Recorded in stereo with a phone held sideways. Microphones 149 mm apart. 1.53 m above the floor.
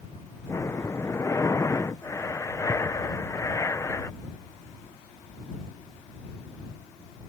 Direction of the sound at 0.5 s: 20° left (ahead or behind).